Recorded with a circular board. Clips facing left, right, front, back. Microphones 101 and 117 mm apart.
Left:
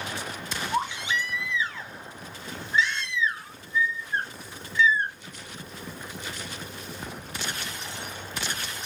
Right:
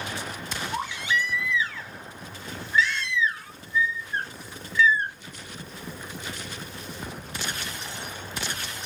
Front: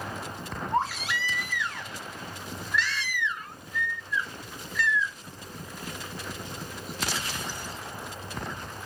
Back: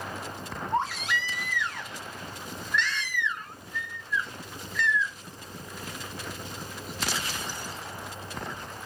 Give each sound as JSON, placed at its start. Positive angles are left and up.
{"t": 0.7, "sound": "a baby crying", "azimuth_deg": 80, "distance_m": 0.7}